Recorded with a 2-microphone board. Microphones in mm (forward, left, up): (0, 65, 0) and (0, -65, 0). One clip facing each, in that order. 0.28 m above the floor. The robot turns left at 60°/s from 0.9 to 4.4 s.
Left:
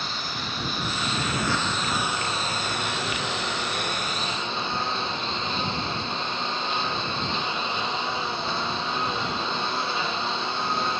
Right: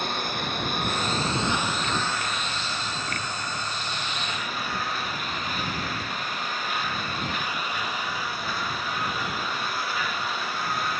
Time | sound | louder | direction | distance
0.0 | a lawn mower | right 4 dB | 125° right | ?